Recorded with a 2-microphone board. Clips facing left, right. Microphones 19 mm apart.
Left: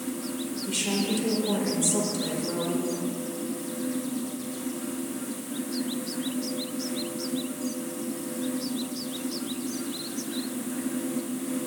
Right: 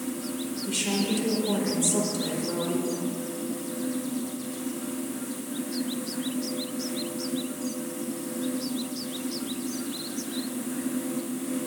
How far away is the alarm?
I don't hear an alarm.